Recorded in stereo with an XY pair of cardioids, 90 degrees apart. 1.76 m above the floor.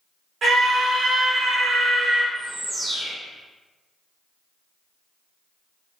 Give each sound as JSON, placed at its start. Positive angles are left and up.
{"t": 0.4, "sound": "a scream", "azimuth_deg": -65, "distance_m": 1.8}
{"t": 2.4, "sound": "a bird", "azimuth_deg": -40, "distance_m": 1.1}